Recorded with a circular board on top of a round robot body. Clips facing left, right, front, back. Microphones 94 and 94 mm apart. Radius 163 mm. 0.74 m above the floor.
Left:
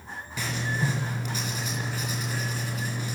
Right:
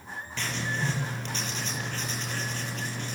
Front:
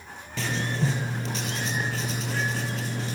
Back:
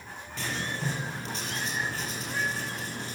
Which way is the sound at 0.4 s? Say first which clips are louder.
Left 2 dB, front 5 dB; 10° left.